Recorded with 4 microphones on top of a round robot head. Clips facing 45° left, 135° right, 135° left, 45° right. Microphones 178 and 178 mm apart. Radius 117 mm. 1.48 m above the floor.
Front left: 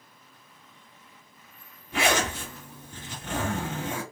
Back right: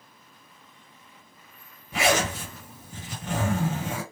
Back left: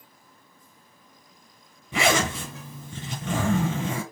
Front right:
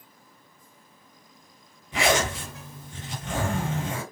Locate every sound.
1.9 s a zipper: 150° left, 2 m